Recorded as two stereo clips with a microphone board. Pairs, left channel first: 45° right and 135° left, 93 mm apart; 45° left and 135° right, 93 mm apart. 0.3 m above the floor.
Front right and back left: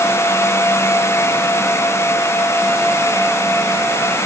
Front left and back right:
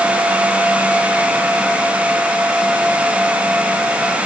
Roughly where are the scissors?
I don't hear scissors.